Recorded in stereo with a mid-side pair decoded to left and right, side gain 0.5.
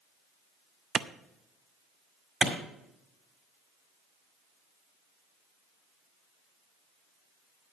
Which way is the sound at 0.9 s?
50° right.